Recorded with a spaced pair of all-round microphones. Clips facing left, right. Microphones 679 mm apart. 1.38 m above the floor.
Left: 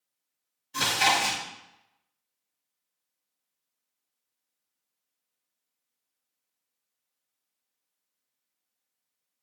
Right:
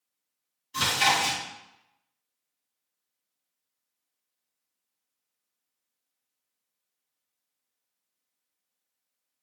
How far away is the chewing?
About 2 m.